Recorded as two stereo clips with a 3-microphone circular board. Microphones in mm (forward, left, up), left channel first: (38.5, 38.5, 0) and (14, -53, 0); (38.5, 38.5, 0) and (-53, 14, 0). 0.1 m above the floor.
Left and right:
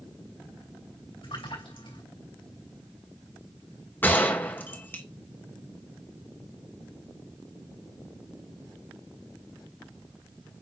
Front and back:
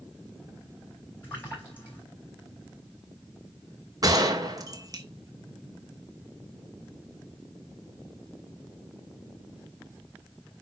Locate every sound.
1.2 s a splash: 85° left, 4.5 m
4.0 s a gunshot: 145° left, 1.2 m